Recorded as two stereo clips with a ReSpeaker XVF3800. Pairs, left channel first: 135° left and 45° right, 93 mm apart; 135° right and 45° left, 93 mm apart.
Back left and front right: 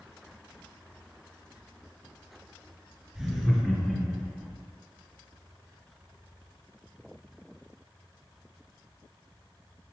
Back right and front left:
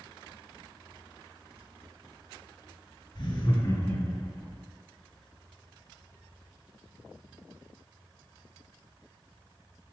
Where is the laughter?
120° right, 1.9 m; by 4.6 s 35° left, 1.3 m.